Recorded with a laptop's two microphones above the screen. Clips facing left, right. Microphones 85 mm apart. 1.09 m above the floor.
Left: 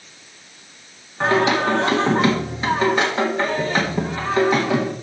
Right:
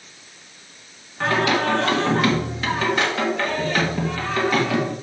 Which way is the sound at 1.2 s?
20° left (ahead or behind).